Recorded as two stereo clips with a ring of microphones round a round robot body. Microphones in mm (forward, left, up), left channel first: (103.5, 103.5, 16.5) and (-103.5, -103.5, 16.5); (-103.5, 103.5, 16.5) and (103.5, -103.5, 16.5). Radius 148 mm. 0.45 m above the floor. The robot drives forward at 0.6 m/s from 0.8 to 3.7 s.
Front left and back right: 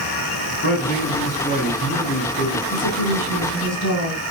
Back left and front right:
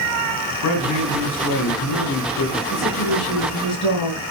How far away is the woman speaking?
About 6 m.